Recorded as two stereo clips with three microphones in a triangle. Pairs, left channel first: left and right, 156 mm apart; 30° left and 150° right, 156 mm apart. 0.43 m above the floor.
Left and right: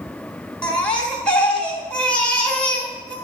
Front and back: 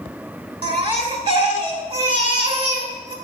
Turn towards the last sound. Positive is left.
turn(degrees=170)